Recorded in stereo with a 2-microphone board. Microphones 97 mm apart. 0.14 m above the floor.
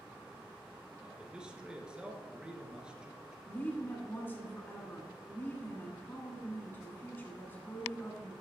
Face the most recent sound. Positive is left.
turn(degrees=20)  # may be behind; listen again after turning